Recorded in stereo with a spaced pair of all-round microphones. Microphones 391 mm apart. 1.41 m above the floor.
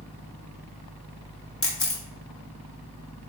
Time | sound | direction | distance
0.0 | a fan | 15° left (ahead or behind) | 2 m
1.6 | a camera shutter | 35° left (ahead or behind) | 0.9 m